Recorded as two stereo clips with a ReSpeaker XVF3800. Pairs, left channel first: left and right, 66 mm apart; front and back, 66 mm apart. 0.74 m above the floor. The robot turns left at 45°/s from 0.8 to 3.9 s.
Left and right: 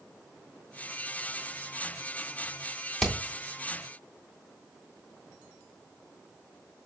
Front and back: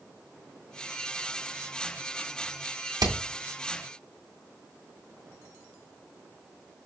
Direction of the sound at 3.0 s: 175° left.